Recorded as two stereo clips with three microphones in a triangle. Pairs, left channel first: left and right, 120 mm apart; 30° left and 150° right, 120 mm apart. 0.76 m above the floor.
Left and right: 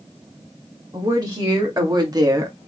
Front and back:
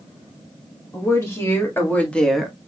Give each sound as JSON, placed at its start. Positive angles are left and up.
{"t": 0.9, "sound": "a woman speaking", "azimuth_deg": -35, "distance_m": 2.5}